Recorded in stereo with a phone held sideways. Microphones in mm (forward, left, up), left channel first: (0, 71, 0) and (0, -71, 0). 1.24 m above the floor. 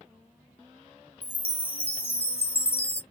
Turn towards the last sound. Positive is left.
turn(degrees=45)  # may be behind; listen again after turning